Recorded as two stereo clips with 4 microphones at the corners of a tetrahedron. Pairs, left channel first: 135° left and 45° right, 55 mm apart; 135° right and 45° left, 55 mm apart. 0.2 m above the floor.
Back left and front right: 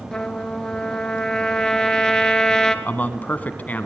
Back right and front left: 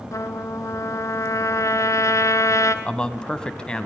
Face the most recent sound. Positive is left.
turn(degrees=165)